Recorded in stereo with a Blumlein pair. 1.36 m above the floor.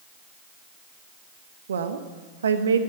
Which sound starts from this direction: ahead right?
A woman speaking, at 1.7 s.